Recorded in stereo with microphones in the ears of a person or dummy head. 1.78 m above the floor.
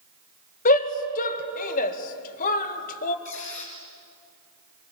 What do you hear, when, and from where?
0.7 s a shout: 45° left (ahead or behind), 2.0 m
3.2 s a squeak: 35° left (ahead or behind), 4.5 m